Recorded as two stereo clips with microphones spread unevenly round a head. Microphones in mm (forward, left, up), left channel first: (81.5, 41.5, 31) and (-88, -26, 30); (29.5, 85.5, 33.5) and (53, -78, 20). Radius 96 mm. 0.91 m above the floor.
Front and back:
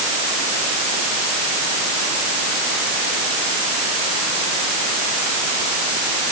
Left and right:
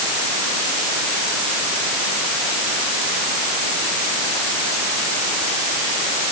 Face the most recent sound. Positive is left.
No sound to turn to.